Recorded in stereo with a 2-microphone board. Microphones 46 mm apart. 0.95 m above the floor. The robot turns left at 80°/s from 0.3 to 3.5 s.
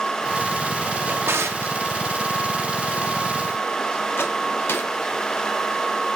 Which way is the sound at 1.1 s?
45° right (ahead or behind).